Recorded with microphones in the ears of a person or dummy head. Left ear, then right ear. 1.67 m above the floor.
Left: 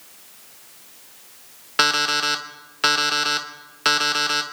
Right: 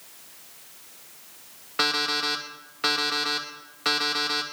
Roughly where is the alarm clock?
Left.